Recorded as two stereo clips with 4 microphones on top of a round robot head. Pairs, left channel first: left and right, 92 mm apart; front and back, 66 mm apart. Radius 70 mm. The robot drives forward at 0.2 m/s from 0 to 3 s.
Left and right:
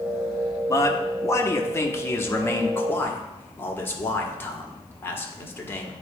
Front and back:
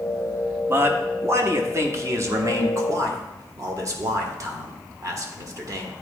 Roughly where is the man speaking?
Behind left.